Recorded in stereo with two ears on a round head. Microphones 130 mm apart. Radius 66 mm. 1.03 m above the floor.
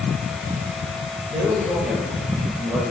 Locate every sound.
1.3 s a man speaking: 15° right (ahead or behind), 1.3 m